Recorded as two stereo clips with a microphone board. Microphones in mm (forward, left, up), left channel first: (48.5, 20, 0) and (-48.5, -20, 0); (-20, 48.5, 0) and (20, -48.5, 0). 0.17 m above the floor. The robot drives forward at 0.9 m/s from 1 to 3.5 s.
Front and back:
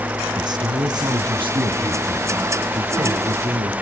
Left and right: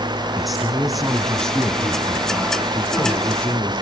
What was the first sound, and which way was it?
A man speaking, 155° right.